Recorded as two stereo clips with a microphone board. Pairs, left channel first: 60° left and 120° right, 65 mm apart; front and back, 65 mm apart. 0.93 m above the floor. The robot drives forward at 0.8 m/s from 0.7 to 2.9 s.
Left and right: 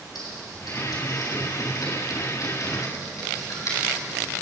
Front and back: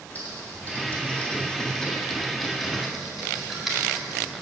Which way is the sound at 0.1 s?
65° left.